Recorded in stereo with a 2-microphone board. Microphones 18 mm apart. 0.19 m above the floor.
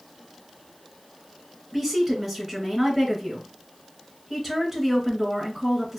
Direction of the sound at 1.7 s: 10° right (ahead or behind).